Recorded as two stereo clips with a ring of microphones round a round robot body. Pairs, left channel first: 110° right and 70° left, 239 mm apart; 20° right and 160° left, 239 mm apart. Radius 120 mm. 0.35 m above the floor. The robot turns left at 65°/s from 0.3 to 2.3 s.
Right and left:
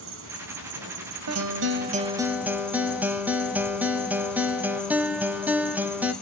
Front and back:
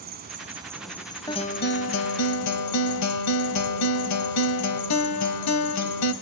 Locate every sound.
0.0 s an insect: 105° left, 1.4 m; by 6.2 s 25° right, 1.4 m
1.3 s a guitar: 50° left, 0.8 m; by 6.1 s 15° right, 0.8 m